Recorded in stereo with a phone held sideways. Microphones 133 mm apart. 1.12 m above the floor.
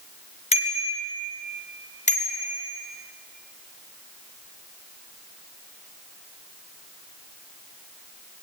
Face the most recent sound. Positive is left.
turn(degrees=60)  # may be behind; listen again after turning